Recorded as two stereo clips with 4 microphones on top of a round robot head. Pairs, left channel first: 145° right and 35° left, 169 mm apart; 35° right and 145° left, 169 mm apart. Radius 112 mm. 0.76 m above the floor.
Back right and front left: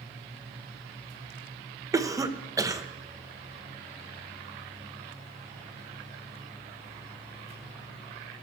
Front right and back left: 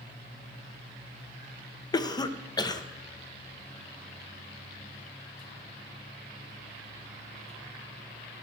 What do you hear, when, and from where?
1.9 s a cough: 10° right, 0.7 m